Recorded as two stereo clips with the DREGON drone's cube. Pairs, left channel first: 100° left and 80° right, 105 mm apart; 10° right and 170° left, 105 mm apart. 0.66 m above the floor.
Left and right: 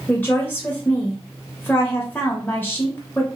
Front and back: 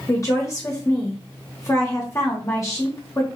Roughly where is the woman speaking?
Ahead left.